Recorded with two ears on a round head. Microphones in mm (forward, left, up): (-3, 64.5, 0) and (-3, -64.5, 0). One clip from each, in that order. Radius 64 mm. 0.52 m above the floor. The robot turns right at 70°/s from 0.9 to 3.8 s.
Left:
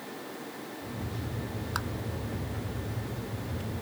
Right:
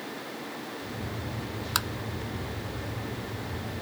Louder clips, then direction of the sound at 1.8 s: Right 6 dB; 65° right (ahead or behind).